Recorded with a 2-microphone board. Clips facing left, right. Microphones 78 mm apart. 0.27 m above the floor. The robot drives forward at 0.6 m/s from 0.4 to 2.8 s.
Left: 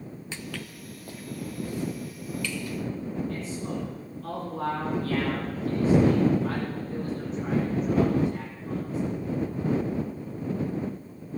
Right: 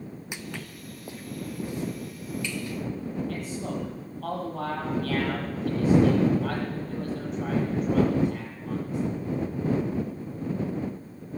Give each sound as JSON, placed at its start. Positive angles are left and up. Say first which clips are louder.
{"t": 0.3, "sound": "footsteps", "louder": "left 1 dB", "side_deg": -15, "distance_m": 0.6}
{"t": 3.3, "sound": "a man speaking", "louder": "even", "side_deg": -80, "distance_m": 7.0}